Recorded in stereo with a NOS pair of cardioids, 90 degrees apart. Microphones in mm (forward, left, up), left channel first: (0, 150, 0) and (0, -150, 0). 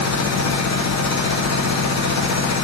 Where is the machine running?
55° left, 1.5 m.